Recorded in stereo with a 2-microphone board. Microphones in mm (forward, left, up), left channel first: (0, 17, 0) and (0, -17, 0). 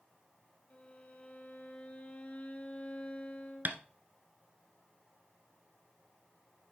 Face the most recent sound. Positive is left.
turn(degrees=-55)  # may be behind; listen again after turning